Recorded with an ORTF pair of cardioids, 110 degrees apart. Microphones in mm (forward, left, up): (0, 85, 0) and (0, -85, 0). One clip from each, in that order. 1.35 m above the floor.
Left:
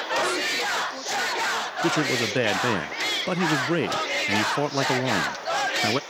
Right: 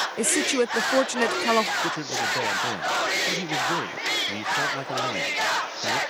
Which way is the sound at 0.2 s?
70° right.